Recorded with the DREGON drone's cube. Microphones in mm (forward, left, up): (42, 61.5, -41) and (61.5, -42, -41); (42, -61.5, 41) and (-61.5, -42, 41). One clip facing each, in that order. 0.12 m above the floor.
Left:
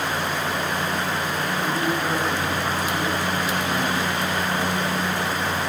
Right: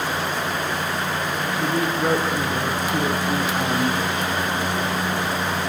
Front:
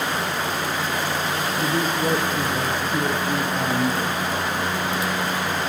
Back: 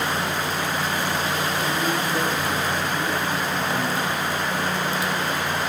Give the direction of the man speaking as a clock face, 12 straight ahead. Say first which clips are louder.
Right 3 dB, front 2 dB; 1 o'clock.